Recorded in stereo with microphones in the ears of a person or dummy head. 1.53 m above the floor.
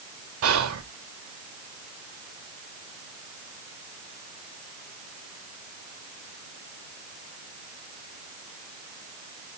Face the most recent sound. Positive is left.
turn(degrees=-75)  # may be behind; listen again after turning